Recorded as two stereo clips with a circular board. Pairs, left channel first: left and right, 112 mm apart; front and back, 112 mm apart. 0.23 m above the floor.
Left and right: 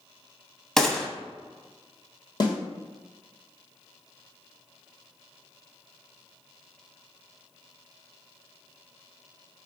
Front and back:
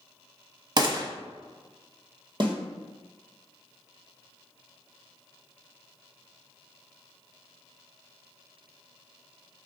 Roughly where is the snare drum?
Behind left.